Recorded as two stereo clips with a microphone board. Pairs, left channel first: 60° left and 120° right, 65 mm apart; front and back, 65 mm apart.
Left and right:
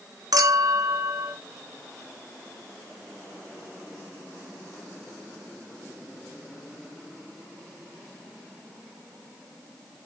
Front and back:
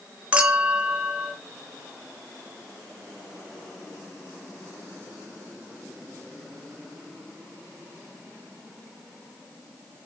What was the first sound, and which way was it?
A clink, 110° right.